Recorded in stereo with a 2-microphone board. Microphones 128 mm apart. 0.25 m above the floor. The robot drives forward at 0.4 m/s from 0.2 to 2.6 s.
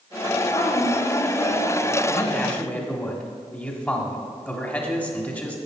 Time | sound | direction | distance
0.5 | a woman speaking | 65° left (ahead or behind) | 3.5 m
2.1 | a man speaking | 15° left (ahead or behind) | 1.3 m